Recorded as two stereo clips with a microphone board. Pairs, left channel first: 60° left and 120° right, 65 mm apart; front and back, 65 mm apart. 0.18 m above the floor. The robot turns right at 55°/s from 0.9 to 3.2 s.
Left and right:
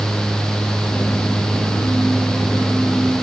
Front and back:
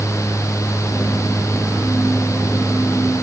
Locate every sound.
Only background noise.